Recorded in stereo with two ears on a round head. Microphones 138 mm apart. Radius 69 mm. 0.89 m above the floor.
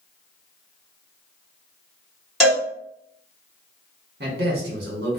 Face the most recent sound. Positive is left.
turn(degrees=-70)  # may be behind; listen again after turning